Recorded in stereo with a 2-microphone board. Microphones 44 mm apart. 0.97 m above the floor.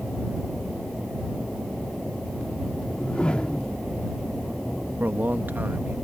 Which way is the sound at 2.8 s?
25° left (ahead or behind).